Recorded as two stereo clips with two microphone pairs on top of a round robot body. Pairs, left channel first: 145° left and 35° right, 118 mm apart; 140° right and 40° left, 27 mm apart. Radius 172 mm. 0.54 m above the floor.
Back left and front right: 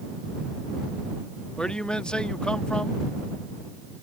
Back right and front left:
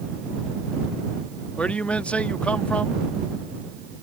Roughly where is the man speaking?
Behind right.